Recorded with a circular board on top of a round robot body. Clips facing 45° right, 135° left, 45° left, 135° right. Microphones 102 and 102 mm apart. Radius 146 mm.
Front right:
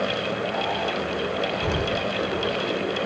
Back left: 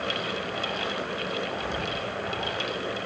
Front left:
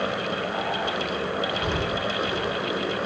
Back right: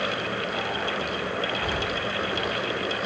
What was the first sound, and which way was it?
An explosion, 20° right.